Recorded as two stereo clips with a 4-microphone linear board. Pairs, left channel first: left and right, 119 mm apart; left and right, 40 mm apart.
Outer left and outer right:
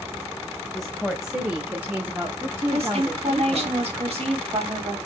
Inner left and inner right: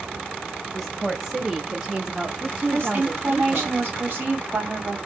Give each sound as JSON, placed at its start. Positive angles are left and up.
{"t": 0.7, "sound": "a woman speaking", "side_deg": 0, "distance_m": 1.6}
{"t": 2.7, "sound": "a woman speaking", "side_deg": -60, "distance_m": 2.0}